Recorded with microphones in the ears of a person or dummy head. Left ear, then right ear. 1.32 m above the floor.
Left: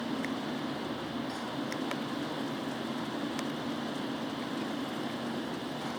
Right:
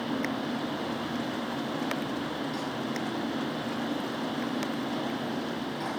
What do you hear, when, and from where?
Only background noise.